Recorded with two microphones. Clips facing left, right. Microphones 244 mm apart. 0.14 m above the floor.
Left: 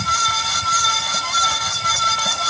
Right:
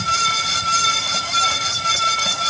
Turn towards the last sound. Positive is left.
No sound to turn to.